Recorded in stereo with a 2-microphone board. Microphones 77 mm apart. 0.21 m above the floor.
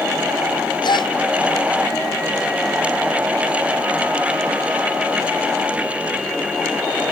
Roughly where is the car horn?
I don't hear a car horn.